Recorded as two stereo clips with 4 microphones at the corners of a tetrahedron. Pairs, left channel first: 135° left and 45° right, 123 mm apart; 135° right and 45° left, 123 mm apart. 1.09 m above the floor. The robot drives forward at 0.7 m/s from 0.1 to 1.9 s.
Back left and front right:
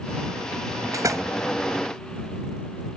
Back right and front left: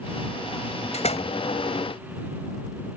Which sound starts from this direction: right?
A door slam, at 0.9 s.